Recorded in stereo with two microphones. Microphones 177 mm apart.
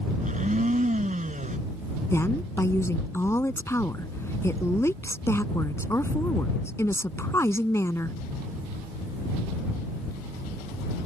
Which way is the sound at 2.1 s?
15° left (ahead or behind).